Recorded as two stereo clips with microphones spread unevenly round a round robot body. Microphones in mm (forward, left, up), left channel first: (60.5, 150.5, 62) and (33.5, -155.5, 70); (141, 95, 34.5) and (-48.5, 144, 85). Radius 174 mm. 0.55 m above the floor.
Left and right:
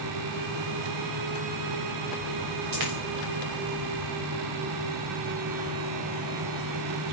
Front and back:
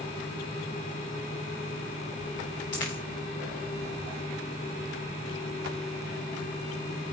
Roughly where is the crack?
No crack in this recording.